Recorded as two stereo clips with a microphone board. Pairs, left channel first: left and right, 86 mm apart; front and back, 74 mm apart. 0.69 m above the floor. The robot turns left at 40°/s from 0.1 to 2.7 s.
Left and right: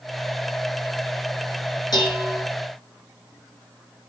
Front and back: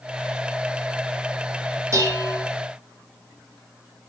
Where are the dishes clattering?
130° left, 8.5 m; by 2.4 s 110° left, 8.5 m.